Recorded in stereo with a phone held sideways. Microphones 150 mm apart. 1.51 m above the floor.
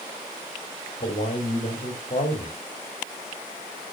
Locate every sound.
1.0 s a man speaking: 45° left (ahead or behind), 3.5 m